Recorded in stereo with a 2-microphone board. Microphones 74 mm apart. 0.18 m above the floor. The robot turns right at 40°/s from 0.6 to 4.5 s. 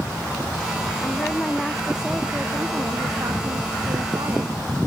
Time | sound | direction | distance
1.0 | a woman speaking | 150° left | ?